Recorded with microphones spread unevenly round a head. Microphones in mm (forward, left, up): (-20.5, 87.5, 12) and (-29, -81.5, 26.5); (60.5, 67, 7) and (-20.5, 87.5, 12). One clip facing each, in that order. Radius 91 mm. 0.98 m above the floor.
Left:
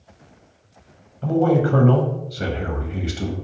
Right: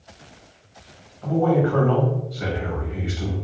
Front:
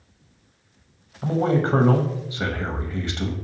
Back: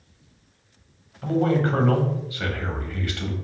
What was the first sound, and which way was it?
A man speaking, 50° left.